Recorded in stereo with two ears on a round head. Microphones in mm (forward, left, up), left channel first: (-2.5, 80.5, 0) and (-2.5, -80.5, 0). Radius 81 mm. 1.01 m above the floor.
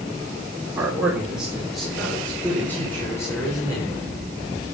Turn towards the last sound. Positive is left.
turn(degrees=20)  # may be behind; listen again after turning